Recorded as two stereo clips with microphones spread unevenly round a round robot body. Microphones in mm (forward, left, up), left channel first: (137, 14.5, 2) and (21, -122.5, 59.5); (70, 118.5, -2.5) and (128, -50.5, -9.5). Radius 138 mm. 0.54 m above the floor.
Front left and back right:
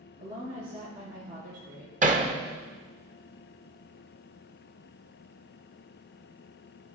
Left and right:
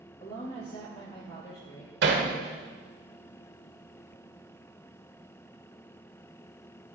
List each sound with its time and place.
0.2 s a woman speaking: 175° left, 5 m
2.0 s hammering: 75° right, 1.4 m